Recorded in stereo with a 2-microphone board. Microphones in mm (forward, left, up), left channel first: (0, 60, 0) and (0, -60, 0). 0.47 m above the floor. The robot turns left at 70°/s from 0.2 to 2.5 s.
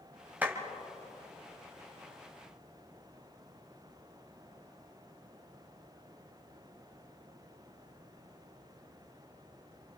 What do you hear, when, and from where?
0.4 s a clap: 15° right (ahead or behind), 2.5 m; by 0.6 s 25° right (ahead or behind), 2.5 m